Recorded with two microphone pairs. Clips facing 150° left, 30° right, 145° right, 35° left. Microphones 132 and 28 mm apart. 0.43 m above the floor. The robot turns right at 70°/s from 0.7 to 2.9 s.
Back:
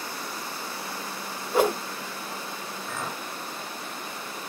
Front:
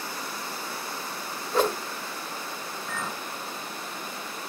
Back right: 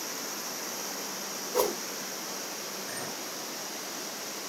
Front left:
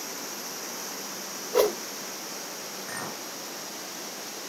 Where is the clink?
65° left, 2.5 m.